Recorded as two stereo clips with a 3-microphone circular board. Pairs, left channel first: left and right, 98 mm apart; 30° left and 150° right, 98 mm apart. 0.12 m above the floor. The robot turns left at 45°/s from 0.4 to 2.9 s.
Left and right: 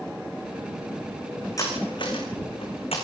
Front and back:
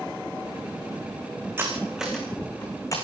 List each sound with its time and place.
1.6 s cutlery clinking: 145° left, 5 m; by 2.9 s 85° left, 5 m